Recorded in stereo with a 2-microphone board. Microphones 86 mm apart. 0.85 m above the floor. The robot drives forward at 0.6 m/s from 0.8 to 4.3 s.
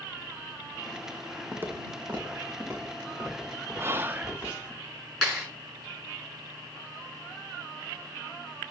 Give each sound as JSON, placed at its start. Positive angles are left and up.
{"t": 1.5, "sound": "footsteps", "side_deg": -25, "distance_m": 1.8}
{"t": 3.8, "sound": "whispering", "side_deg": -30, "distance_m": 0.5}
{"t": 5.2, "sound": "a clap", "side_deg": 5, "distance_m": 7.0}